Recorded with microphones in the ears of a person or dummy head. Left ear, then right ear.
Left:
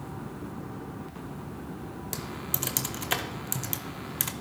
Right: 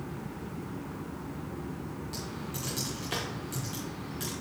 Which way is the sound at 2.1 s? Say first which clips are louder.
Left 4 dB; 35° left (ahead or behind).